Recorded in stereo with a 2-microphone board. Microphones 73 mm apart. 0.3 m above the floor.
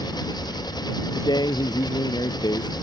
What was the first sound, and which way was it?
An engine running, 70° left (ahead or behind).